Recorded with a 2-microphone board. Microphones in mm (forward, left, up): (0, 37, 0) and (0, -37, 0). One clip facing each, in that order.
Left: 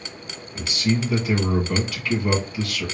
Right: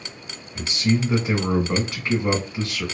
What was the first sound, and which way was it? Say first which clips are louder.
A man speaking: right 1 dB; 25° right (ahead or behind).